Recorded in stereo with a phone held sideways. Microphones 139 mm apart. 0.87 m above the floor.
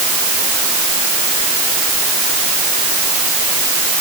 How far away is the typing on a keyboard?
No typing on a keyboard in this recording.